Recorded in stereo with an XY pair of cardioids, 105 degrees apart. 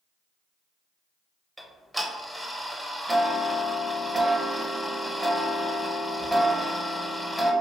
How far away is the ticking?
About 0.6 m.